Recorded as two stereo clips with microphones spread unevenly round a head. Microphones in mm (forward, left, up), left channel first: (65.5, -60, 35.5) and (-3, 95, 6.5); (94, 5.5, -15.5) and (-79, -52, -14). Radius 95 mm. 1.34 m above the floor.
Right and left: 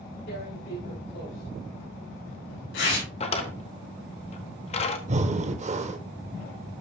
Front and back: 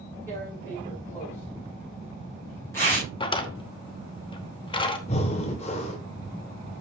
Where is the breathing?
75° left, 0.9 m.